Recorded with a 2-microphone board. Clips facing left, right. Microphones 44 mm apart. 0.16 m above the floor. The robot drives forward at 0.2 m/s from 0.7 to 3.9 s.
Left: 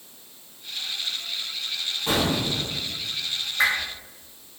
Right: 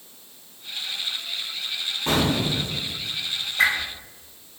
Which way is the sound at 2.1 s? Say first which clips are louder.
Right 2 dB; 40° right (ahead or behind).